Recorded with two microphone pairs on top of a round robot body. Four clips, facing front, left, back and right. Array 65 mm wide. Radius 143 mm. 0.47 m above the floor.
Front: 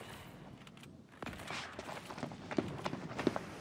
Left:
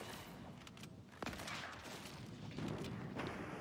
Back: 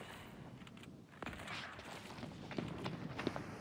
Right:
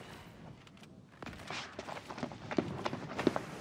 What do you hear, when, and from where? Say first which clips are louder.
1.5 s running footsteps: right 6 dB, front 4 dB; 65° right; by 3.5 s 75° right